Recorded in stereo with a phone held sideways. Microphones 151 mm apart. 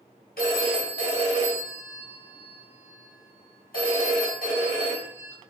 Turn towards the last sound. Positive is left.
turn(degrees=85)